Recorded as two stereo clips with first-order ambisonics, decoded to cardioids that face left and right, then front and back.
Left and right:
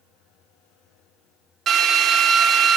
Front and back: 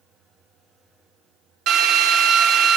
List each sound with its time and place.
1.7 s a drill: 150° right, 1.5 m